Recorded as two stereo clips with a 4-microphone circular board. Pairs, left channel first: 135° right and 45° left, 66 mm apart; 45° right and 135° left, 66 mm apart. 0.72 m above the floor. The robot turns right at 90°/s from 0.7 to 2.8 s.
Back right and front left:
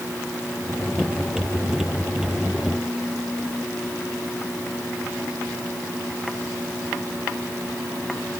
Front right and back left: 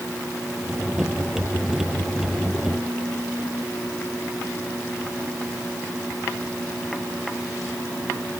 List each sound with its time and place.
Only background noise.